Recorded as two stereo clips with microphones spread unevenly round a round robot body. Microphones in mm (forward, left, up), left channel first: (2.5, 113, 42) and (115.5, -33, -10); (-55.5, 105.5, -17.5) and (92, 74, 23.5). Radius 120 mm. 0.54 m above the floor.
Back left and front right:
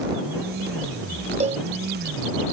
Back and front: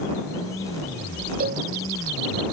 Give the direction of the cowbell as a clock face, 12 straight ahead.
12 o'clock.